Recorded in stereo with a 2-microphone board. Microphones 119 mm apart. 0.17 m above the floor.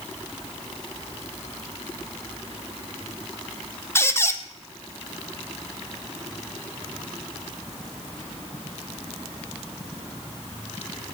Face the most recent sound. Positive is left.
turn(degrees=20)  # may be behind; listen again after turning